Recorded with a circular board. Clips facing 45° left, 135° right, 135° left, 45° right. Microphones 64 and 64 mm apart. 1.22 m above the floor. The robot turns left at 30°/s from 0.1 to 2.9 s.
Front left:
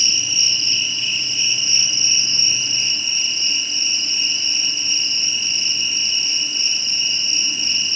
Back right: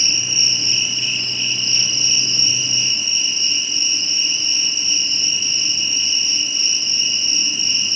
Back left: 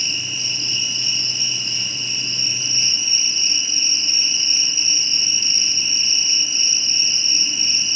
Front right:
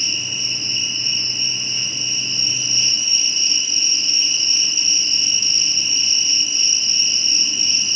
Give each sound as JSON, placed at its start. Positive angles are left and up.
{"t": 0.0, "sound": "an insect", "azimuth_deg": 165, "distance_m": 4.0}